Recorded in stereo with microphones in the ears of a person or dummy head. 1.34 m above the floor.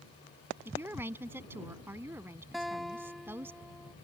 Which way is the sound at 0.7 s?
15° right (ahead or behind).